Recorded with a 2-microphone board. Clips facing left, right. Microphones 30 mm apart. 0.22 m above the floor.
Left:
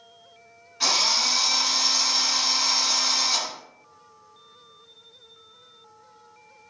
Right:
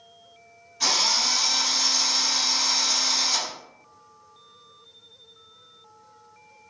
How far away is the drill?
About 1.8 m.